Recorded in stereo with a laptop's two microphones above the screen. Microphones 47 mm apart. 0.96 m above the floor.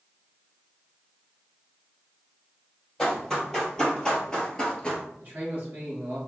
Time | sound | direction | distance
3.0 | running footsteps | 10° left (ahead or behind) | 1.6 m
5.2 | a man speaking | 45° right (ahead or behind) | 1.7 m